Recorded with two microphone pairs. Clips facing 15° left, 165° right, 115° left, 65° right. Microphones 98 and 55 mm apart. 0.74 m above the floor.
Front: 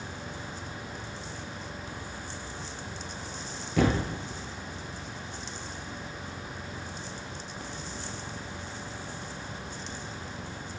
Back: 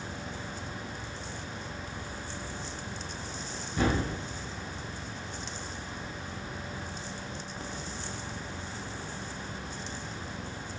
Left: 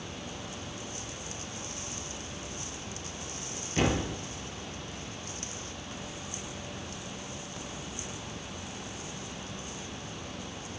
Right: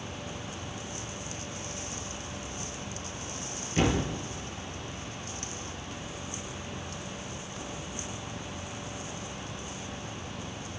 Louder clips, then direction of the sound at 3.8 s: Front 3 dB, right 1 dB; 25° left.